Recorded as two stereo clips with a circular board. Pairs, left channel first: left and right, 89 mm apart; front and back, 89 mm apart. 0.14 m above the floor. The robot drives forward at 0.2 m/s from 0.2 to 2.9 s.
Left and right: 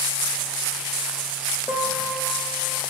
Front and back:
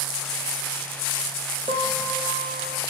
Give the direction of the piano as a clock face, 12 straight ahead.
7 o'clock.